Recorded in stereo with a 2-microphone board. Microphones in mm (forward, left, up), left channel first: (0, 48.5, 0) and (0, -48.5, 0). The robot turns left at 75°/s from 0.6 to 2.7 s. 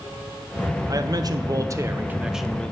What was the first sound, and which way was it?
A man speaking, 60° right.